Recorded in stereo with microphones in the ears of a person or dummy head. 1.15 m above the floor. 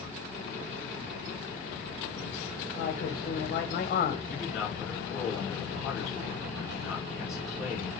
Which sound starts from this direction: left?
A man speaking, at 2.8 s.